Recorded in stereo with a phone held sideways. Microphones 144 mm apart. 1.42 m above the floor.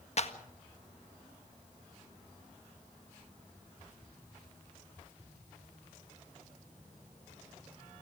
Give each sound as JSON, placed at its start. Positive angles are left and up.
{"t": 0.2, "sound": "a clap", "side_deg": 50, "distance_m": 1.5}